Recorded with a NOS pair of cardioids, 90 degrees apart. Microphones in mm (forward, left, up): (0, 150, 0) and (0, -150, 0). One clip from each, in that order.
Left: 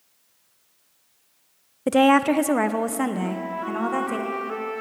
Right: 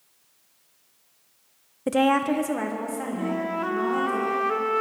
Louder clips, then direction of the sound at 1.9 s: Left 4 dB; 15° left.